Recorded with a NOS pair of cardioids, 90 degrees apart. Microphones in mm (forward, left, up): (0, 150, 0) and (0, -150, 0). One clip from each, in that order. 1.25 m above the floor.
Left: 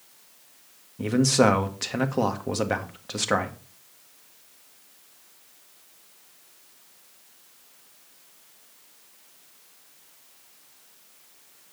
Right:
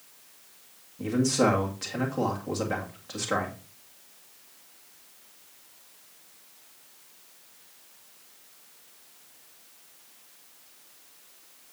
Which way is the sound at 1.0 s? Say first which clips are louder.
Left 4 dB; 50° left.